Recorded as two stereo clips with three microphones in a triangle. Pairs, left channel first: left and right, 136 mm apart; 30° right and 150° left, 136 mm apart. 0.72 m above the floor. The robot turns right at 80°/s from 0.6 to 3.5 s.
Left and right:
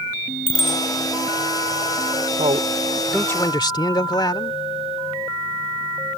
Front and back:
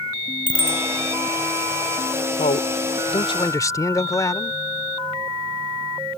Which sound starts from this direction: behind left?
A bicycle bell, at 0.5 s.